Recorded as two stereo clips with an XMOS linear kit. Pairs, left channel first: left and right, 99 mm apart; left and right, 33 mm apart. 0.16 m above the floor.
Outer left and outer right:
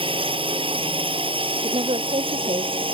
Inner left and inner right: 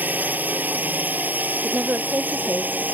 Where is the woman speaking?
75° right (ahead or behind).